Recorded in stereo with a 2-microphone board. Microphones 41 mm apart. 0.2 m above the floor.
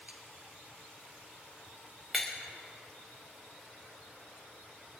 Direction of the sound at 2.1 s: 5° right (ahead or behind).